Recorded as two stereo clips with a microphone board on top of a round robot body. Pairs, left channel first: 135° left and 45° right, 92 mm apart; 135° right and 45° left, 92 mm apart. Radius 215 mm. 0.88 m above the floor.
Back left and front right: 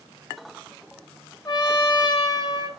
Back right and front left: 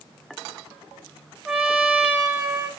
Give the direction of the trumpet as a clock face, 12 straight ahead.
8 o'clock.